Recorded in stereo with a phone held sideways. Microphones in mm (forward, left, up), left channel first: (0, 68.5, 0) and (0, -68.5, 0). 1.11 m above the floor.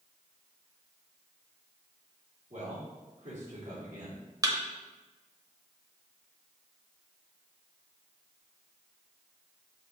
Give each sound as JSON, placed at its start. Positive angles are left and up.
{"t": 2.5, "sound": "a man speaking", "side_deg": -60, "distance_m": 3.0}
{"t": 4.4, "sound": "a thud", "side_deg": -25, "distance_m": 0.9}